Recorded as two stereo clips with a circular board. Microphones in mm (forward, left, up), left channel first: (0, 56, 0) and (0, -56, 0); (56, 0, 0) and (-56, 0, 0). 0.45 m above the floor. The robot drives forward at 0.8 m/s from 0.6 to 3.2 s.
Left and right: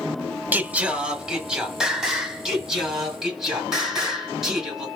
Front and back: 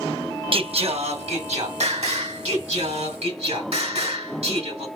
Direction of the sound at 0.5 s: 160° right.